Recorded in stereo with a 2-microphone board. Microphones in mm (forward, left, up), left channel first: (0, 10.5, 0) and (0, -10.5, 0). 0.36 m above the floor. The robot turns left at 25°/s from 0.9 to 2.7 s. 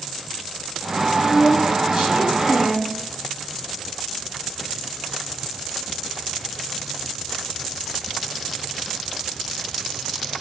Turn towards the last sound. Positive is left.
turn(degrees=-110)